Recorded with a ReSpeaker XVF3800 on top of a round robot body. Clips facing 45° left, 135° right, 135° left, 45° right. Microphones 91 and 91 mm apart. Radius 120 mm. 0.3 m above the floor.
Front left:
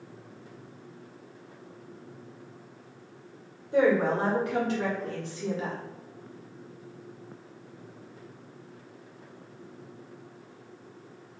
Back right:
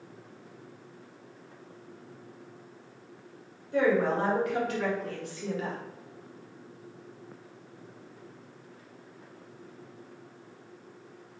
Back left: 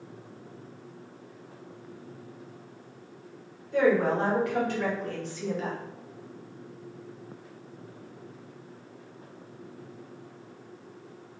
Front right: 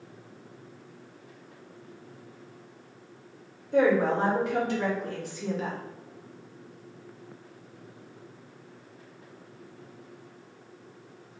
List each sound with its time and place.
3.7 s a woman speaking: 5° right, 1.9 m; by 5.8 s 50° left, 1.4 m